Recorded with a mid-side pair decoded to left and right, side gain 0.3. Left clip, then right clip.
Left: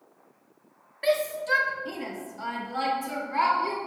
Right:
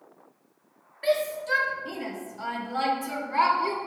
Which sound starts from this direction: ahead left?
A shout, at 1.0 s.